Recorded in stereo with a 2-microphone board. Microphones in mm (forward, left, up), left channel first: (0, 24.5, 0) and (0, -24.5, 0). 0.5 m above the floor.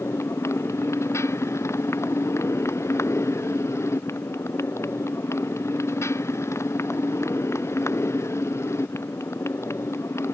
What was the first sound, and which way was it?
A motorcycle, 70° left (ahead or behind).